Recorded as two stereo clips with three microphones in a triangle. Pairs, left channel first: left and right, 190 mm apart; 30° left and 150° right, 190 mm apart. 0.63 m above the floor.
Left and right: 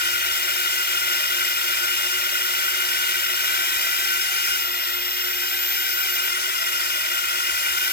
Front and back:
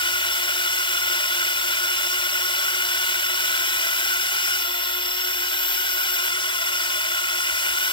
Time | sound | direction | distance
0.0 | a drone | 90° left | ?